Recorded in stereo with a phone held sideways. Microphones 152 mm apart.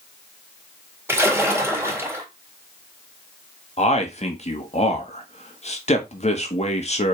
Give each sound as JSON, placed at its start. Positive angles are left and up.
{"t": 1.1, "sound": "a splash", "side_deg": -15, "distance_m": 2.5}
{"t": 3.8, "sound": "a man speaking", "side_deg": 45, "distance_m": 1.8}